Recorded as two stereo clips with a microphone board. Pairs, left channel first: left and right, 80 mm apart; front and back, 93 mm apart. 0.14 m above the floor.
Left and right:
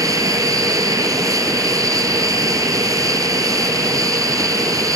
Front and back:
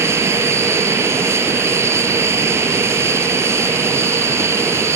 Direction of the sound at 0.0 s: 125° right.